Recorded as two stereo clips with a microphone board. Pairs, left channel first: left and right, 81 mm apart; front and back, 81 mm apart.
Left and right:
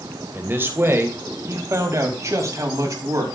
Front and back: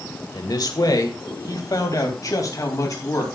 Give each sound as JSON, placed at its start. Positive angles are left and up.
{"t": 0.3, "sound": "a man speaking", "azimuth_deg": -30, "distance_m": 2.0}